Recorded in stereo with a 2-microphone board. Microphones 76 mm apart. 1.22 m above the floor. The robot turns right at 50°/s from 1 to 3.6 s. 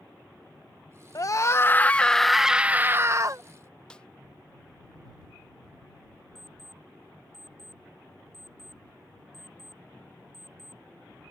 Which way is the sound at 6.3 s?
5° left (ahead or behind).